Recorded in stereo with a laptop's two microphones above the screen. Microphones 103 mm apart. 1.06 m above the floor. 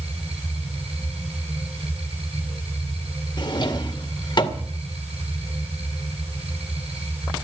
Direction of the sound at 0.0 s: 75° right (ahead or behind).